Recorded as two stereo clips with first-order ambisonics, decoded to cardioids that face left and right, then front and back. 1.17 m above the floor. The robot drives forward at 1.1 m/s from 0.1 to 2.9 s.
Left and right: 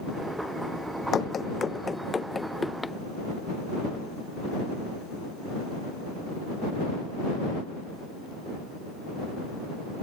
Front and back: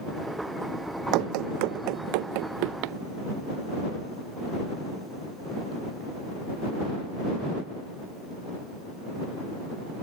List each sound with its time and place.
1.1 s running footsteps: 155° left; by 3.0 s 175° left